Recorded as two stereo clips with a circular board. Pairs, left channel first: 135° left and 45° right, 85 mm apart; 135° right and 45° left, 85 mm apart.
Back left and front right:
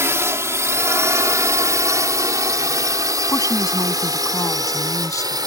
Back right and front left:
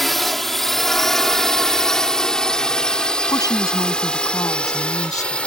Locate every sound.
0.0 s a drone: 50° right; by 5.5 s 60° right
3.3 s a woman speaking: straight behind